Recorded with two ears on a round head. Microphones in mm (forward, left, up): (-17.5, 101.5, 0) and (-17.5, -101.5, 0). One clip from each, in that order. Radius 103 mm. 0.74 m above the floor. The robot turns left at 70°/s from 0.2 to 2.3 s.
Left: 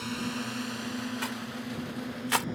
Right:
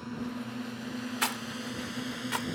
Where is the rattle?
45° right (ahead or behind); by 2.5 s 30° left (ahead or behind).